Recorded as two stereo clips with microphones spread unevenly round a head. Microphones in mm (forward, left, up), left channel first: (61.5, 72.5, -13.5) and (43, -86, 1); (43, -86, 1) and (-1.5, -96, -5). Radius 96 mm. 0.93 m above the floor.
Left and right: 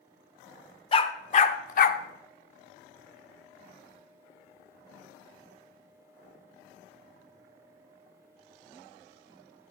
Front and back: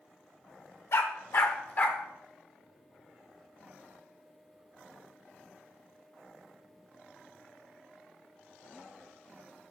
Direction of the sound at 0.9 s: 30° left.